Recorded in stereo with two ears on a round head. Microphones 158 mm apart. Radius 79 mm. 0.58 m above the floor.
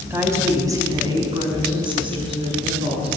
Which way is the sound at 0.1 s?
15° right (ahead or behind).